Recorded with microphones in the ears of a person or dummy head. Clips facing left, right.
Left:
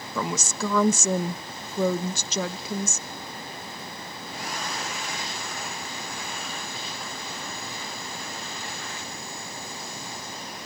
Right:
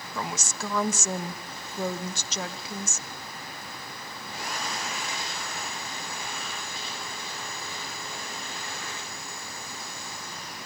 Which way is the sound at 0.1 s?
70° left (ahead or behind).